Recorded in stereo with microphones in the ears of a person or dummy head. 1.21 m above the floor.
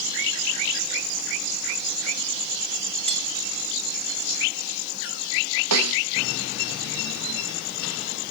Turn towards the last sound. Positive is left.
turn(degrees=-85)